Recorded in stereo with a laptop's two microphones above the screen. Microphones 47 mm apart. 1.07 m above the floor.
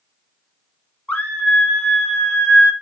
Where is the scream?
25° left (ahead or behind), 3 m; by 2.7 s 5° left (ahead or behind), 3 m.